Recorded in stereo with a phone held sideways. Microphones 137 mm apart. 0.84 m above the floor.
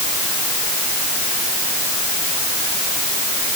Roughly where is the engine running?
I don't hear an engine running.